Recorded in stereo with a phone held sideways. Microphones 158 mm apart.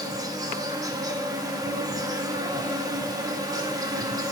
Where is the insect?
25° right (ahead or behind), 1.1 m.